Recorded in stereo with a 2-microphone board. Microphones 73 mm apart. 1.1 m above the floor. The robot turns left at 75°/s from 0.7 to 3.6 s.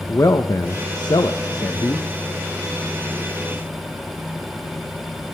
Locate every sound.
0.1 s a man speaking: 130° left, 0.6 m; by 2.0 s 30° left, 0.6 m